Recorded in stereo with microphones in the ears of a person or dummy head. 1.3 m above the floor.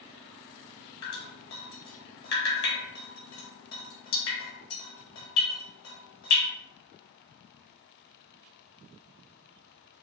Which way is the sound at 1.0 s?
60° left (ahead or behind).